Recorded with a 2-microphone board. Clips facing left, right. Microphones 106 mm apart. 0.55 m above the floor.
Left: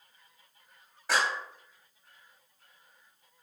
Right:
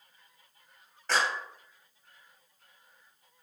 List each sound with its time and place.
1.1 s a clap: 10° left (ahead or behind), 3 m